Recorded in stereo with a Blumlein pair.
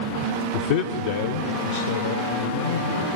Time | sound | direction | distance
0.5 | a man speaking | 55° left | 0.9 m